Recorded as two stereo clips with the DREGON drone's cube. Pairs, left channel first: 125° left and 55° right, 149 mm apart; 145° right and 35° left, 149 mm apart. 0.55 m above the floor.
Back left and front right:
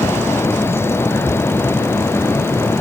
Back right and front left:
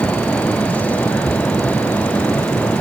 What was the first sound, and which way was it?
Only background noise.